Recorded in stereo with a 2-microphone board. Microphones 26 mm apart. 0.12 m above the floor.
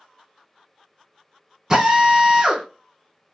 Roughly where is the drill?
Right.